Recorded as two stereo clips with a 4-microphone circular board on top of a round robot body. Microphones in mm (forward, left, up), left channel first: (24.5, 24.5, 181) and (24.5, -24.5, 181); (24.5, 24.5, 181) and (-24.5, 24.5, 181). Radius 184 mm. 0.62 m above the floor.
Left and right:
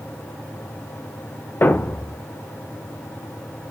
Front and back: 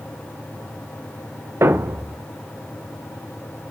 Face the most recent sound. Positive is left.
turn(degrees=145)